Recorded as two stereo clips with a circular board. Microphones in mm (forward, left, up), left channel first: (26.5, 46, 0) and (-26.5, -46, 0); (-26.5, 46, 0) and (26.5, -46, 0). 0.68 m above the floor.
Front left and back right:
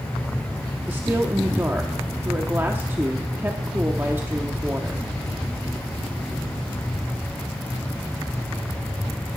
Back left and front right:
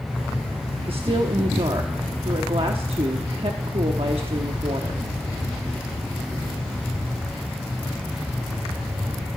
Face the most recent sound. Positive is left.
turn(degrees=-55)